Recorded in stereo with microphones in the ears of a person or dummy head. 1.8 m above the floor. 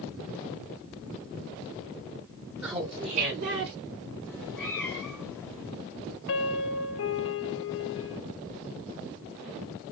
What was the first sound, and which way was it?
Laughter, 10° right (ahead or behind).